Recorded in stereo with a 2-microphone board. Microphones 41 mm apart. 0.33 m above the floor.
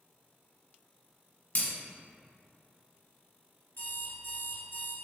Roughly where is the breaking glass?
Left.